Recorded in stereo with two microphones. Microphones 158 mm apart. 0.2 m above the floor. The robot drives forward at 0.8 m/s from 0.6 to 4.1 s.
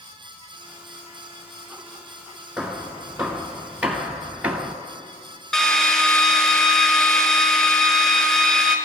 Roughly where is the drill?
Centre.